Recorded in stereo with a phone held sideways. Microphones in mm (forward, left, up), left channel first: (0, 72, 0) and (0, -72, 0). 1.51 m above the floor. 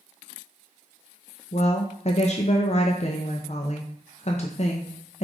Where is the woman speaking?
50° left (ahead or behind), 0.6 m.